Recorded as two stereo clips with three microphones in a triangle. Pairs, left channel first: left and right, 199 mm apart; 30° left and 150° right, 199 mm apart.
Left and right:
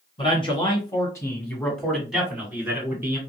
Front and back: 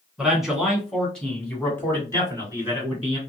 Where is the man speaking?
125° left, 1.4 m; by 3.2 s 30° right, 1.5 m.